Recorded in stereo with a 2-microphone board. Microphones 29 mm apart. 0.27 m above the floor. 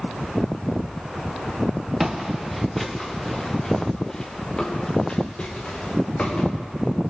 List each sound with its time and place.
2.0 s footsteps: 10° right (ahead or behind), 2 m; by 6.5 s 35° left (ahead or behind), 4.5 m